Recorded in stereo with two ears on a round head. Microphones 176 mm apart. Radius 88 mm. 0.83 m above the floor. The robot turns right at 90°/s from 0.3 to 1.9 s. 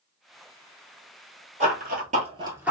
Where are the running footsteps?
40° right (ahead or behind), 1.3 m; by 2.7 s 5° right (ahead or behind), 0.8 m.